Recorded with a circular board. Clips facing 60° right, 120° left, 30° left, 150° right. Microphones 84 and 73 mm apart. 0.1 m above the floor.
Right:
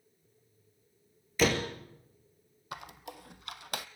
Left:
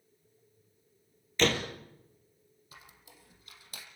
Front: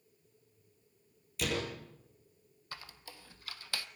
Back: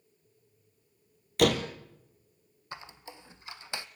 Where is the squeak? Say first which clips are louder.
Right 13 dB, back 5 dB; 80° right, 1.0 m.